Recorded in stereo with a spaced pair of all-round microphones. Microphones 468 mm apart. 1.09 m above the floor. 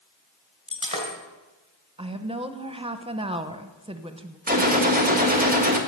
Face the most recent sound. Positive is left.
turn(degrees=-20)  # may be behind; listen again after turning